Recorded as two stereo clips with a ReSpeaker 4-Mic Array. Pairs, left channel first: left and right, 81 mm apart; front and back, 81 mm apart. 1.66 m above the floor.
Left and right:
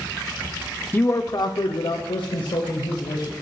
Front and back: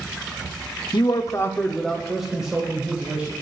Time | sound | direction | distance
0.9 | a man speaking | 25° left | 0.7 m